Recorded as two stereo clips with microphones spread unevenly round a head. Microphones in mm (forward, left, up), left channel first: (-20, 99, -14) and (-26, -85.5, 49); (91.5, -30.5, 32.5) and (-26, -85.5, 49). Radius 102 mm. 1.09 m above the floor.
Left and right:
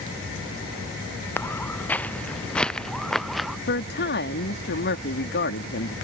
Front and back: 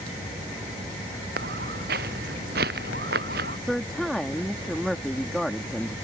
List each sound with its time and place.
1.4 s footsteps: 170° left; by 3.6 s straight behind
3.7 s a woman speaking: 115° left